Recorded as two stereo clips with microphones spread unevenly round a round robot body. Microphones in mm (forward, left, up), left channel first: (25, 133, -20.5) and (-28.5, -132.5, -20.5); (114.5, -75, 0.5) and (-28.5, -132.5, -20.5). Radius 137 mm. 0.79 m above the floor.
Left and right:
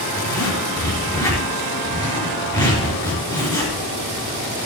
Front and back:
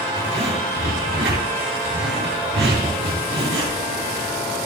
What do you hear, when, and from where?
0.2 s a zipper: 155° left, 4 m